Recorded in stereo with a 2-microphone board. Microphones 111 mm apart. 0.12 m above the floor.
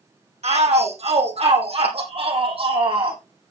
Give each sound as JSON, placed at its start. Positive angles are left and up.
{"t": 0.4, "sound": "a shout", "side_deg": -75, "distance_m": 4.5}